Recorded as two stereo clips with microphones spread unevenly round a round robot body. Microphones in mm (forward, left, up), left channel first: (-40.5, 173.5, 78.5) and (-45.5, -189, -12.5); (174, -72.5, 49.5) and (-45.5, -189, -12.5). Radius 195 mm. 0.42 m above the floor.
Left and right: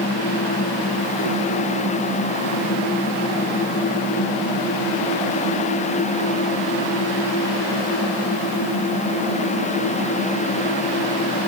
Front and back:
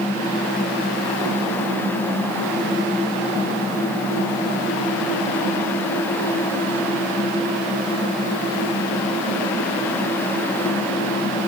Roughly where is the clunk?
I don't hear a clunk.